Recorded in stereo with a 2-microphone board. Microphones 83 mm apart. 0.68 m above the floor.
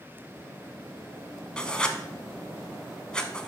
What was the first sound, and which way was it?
Writing, 10° left (ahead or behind).